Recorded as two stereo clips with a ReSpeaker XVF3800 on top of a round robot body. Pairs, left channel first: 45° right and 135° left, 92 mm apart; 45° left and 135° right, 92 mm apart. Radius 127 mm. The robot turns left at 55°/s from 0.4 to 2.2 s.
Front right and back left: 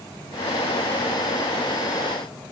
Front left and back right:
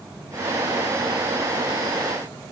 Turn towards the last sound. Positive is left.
No sound to turn to.